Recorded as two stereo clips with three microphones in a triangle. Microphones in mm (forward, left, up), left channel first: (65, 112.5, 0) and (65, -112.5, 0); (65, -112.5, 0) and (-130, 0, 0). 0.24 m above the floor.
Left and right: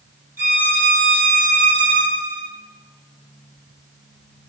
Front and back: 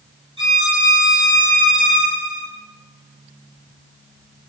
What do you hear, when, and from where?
0.4 s a violin: 100° left, 1.5 m